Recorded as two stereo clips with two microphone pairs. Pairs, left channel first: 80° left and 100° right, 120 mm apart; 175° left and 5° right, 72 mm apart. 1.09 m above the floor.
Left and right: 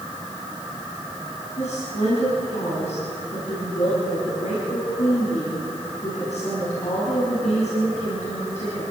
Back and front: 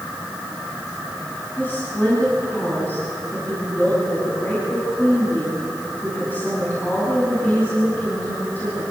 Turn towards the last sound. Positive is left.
turn(degrees=110)